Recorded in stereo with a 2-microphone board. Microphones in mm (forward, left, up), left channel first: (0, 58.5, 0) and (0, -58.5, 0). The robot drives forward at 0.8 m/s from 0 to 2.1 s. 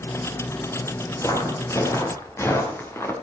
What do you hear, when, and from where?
1.2 s footsteps: 30° left (ahead or behind), 4 m; by 3.1 s 20° left (ahead or behind), 3.5 m